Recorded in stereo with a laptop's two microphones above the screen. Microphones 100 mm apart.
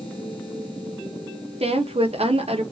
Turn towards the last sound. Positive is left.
turn(degrees=-75)  # may be behind; listen again after turning